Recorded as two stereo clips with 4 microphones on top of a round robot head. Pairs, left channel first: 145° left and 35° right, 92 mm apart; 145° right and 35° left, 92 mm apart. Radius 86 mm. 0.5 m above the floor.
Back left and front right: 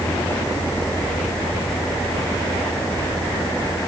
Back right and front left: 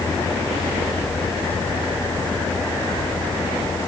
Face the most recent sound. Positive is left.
No sound to turn to.